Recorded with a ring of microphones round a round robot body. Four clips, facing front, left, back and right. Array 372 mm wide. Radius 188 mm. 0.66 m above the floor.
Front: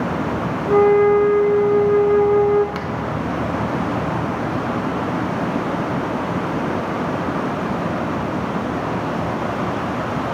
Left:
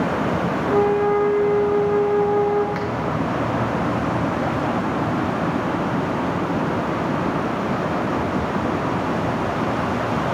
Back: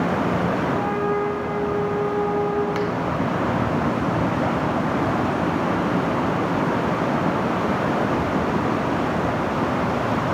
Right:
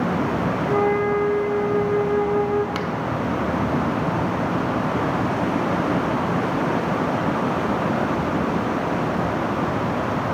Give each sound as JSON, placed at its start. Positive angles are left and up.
{"t": 0.7, "sound": "a flute", "azimuth_deg": -5, "distance_m": 0.6}
{"t": 2.8, "sound": "a finger snap", "azimuth_deg": -90, "distance_m": 0.5}